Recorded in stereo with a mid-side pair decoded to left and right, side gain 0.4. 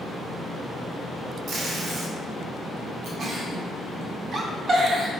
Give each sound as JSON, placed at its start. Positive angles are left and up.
{"t": 1.5, "sound": "tape being pulled", "azimuth_deg": -65, "distance_m": 0.7}
{"t": 3.2, "sound": "a giggle", "azimuth_deg": -50, "distance_m": 0.6}